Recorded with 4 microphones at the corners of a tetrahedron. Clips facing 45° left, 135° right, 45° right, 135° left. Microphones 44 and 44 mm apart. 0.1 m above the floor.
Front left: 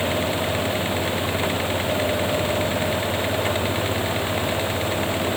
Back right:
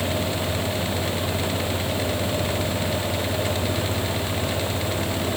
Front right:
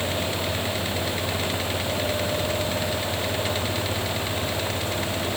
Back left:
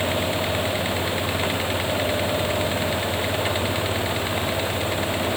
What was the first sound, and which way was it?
Only background noise.